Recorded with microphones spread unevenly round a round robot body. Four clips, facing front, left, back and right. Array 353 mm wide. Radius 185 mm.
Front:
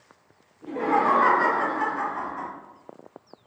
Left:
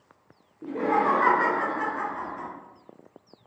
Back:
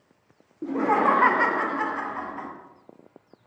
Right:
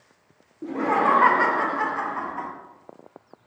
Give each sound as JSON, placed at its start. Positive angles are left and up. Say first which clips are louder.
{"t": 0.6, "sound": "laughter", "louder": "right 2 dB, back 1 dB", "azimuth_deg": -155, "distance_m": 0.7}